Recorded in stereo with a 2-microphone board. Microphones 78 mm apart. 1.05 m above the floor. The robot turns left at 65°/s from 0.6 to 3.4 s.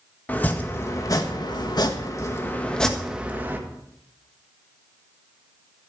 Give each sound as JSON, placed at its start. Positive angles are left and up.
{"t": 0.3, "sound": "chopping", "azimuth_deg": 155, "distance_m": 1.6}